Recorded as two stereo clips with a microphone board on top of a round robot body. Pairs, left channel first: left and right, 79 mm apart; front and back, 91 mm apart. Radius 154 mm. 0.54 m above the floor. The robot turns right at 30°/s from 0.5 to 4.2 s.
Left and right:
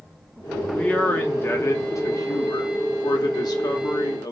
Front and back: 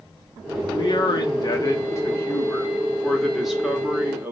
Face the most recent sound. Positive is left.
turn(degrees=120)